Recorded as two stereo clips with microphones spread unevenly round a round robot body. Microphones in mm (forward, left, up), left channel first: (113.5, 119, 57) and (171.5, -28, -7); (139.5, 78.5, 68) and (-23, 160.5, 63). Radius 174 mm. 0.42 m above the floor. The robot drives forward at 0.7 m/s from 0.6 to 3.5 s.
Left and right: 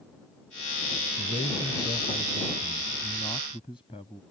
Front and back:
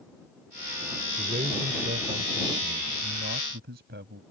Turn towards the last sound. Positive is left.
turn(degrees=-170)